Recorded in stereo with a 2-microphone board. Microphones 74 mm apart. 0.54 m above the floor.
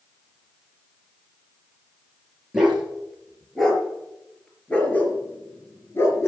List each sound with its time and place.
2.5 s a dog barking: 5° right (ahead or behind), 4 m; by 6.3 s 40° left (ahead or behind), 2.5 m